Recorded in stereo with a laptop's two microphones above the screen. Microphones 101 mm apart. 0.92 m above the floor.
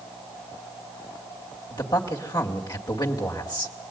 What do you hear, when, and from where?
1.7 s a man speaking: 40° left (ahead or behind), 2.5 m